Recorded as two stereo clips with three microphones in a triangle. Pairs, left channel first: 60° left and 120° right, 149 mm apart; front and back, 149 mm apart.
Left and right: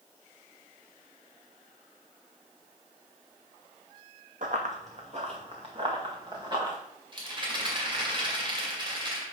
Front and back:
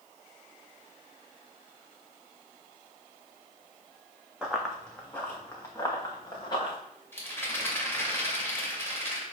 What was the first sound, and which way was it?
Running footsteps, 95° right.